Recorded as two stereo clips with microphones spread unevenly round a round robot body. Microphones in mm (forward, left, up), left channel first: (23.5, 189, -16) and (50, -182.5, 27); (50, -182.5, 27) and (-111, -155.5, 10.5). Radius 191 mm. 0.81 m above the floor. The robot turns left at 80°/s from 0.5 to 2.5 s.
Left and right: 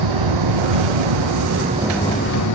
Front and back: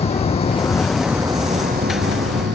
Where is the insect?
60° right; by 2.6 s 140° left.